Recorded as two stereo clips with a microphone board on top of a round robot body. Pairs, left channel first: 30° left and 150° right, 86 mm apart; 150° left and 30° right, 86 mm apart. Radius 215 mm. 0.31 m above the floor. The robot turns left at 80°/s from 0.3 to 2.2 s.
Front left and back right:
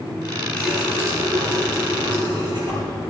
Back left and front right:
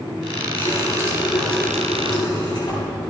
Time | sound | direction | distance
0.6 | a running tap | 50° right | 6.5 m